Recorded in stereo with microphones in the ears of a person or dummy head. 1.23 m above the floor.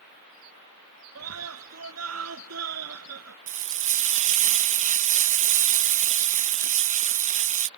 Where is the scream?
85° right.